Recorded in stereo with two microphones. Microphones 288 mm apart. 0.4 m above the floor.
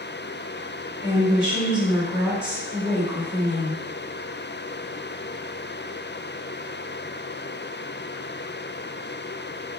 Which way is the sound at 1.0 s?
20° left (ahead or behind).